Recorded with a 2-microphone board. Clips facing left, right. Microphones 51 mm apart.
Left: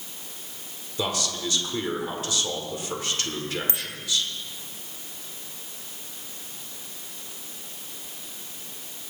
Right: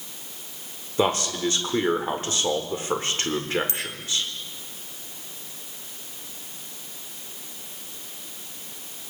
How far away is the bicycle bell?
About 2.5 m.